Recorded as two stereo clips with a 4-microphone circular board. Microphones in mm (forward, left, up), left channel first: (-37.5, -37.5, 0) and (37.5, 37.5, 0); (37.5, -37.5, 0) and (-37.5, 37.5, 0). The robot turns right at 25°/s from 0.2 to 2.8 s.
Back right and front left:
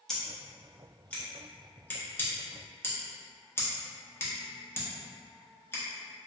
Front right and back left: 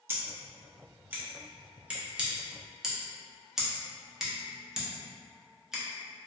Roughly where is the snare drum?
No snare drum in this recording.